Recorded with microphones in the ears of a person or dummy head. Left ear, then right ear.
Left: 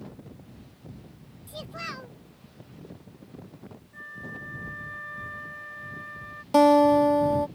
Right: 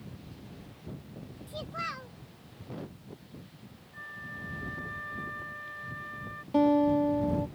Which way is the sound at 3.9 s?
10° left (ahead or behind).